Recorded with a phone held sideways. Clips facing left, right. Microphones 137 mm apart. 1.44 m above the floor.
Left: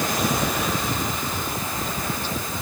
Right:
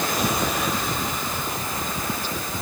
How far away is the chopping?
I don't hear chopping.